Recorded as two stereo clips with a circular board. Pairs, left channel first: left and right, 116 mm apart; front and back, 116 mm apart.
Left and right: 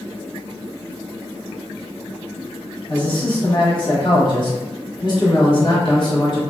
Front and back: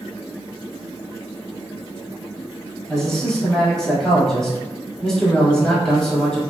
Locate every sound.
2.9 s a man speaking: 85° left, 1.3 m